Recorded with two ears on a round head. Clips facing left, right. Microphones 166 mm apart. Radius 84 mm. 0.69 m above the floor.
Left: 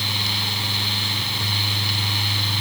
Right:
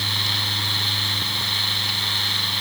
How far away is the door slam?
I don't hear a door slam.